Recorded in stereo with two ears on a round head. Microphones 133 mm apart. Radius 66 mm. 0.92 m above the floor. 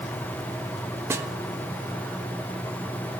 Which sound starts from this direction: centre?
A snare drum, at 1.1 s.